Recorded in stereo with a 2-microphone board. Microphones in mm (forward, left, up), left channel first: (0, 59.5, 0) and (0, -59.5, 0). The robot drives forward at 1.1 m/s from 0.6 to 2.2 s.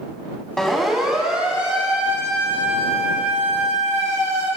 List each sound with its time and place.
0.6 s a siren: 5° left (ahead or behind), 3.5 m; by 4.5 s 25° right (ahead or behind), 10 m